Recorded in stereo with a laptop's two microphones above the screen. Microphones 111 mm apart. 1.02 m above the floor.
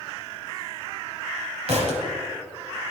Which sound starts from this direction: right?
A thud, at 1.7 s.